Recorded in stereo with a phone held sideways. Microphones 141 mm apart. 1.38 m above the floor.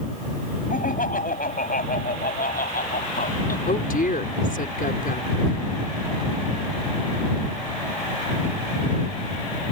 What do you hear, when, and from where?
0.7 s laughter: 75° left (ahead or behind); by 3.6 s 85° left
3.7 s a woman speaking: 85° left